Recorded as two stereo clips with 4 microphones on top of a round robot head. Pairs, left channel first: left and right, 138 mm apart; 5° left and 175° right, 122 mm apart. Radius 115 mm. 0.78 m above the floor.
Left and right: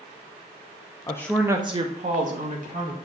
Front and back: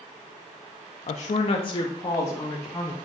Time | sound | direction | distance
1.1 | a woman speaking | 30° left | 0.7 m